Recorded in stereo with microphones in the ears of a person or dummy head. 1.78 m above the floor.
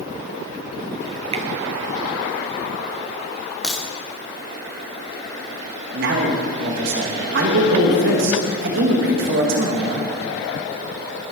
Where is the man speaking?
60° right (ahead or behind), 1.8 m.